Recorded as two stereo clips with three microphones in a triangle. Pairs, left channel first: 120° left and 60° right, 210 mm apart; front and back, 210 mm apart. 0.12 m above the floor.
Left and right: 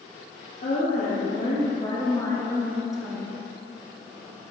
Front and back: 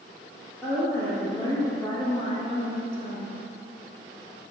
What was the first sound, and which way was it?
A woman speaking, 85° left.